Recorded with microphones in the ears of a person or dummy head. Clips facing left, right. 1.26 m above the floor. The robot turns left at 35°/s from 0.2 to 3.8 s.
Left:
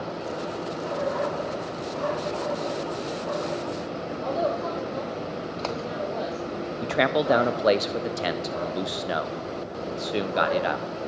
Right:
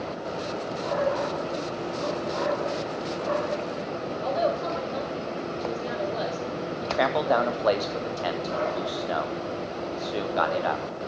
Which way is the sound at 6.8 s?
25° left (ahead or behind).